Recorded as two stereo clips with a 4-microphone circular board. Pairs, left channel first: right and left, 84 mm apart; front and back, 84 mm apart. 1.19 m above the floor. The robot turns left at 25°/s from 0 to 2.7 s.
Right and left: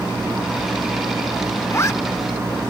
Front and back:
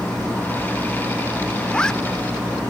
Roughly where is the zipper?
Right.